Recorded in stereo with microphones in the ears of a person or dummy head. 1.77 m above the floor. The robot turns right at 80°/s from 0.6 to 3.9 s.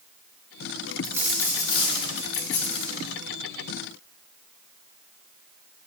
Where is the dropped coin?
20° right, 2 m; by 3.2 s 150° left, 2 m.